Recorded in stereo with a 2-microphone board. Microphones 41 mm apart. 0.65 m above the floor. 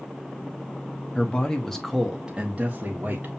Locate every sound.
1.1 s a man speaking: 30° left (ahead or behind), 1.0 m; by 3.3 s 45° right (ahead or behind), 1.3 m